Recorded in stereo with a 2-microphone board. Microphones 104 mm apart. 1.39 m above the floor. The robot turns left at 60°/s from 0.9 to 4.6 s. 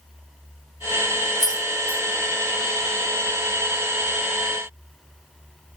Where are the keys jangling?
40° left (ahead or behind), 1.2 m; by 2.0 s 10° left (ahead or behind), 1.2 m.